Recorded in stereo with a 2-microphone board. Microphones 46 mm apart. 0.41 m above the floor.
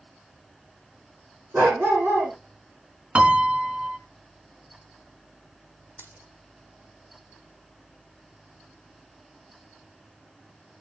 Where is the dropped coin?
50° right (ahead or behind), 3 m.